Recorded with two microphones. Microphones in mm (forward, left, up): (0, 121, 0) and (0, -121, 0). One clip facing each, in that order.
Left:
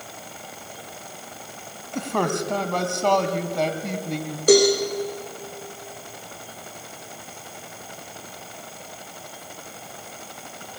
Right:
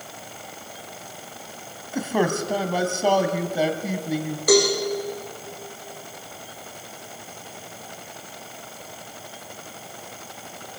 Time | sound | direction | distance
1.9 | a man speaking | 5° right (ahead or behind) | 2 m
4.5 | a cowbell | 30° left (ahead or behind) | 6 m